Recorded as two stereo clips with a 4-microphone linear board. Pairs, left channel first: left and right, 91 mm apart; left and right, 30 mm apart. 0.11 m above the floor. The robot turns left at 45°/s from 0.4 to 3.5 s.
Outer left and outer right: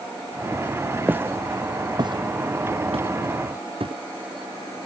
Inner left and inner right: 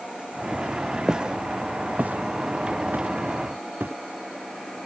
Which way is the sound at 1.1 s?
20° right (ahead or behind).